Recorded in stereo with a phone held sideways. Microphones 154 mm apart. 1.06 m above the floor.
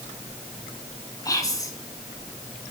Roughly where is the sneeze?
I don't hear a sneeze.